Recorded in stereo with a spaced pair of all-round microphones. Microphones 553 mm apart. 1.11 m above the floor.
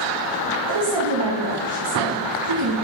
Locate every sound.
0.7 s a woman speaking: 50° right (ahead or behind), 1.2 m